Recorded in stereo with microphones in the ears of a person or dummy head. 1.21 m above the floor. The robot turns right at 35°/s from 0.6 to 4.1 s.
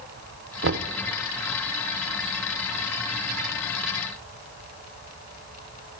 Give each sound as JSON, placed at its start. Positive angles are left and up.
{"t": 0.6, "sound": "knocking", "side_deg": -65, "distance_m": 0.7}